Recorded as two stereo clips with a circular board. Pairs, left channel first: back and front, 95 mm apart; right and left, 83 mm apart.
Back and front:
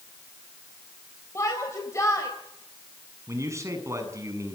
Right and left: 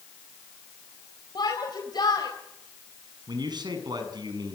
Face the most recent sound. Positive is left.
turn(degrees=60)